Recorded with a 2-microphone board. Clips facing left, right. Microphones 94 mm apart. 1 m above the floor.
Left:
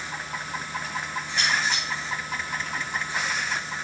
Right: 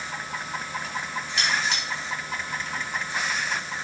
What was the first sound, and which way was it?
Cutlery clinking, 75° right (ahead or behind).